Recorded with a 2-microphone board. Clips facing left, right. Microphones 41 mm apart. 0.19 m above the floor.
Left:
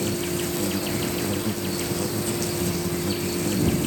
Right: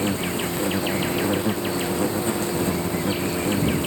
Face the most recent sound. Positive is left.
turn(degrees=-30)  # may be behind; listen again after turning